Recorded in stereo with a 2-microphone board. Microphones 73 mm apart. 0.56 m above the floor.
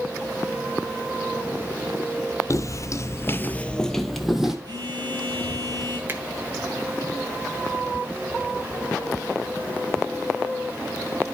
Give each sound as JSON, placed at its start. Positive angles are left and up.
{"t": 2.5, "sound": "footsteps", "side_deg": 45, "distance_m": 0.9}
{"t": 4.7, "sound": "a phone buzzing", "side_deg": -65, "distance_m": 3.0}
{"t": 6.1, "sound": "a finger snap", "side_deg": -30, "distance_m": 1.3}